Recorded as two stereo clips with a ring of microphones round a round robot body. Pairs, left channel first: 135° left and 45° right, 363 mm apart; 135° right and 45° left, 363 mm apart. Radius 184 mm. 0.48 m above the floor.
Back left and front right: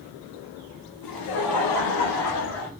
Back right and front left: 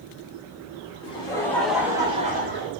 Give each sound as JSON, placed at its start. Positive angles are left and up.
{"t": 1.0, "sound": "laughter", "azimuth_deg": 150, "distance_m": 2.0}